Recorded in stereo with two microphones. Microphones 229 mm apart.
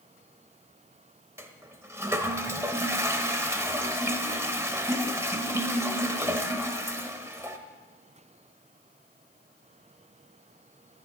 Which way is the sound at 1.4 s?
10° right (ahead or behind).